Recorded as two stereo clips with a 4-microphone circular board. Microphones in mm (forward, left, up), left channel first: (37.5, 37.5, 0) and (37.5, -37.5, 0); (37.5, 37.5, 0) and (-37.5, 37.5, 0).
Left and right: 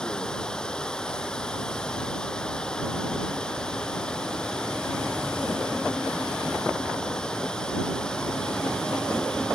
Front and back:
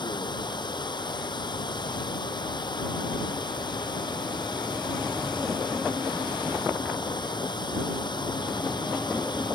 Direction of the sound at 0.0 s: 10° left.